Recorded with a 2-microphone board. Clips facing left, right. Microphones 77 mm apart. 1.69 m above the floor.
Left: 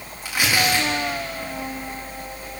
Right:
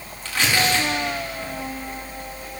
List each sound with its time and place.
0.2 s tearing paper: 15° left (ahead or behind), 4 m